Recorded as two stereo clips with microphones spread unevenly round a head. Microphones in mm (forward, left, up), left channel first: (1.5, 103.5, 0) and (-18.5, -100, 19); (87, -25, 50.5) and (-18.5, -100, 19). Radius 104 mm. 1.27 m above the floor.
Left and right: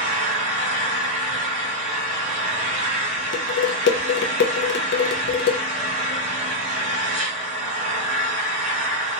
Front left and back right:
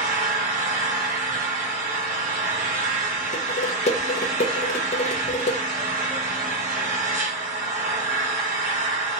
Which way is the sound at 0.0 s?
155° right.